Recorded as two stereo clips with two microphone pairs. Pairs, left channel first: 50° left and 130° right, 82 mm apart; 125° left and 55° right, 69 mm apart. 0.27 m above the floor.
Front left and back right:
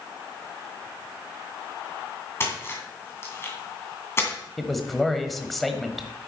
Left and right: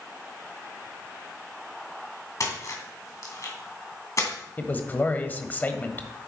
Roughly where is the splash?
Left.